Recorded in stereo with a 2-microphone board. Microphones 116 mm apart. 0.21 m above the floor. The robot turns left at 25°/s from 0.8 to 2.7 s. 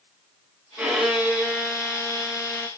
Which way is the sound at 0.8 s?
170° right.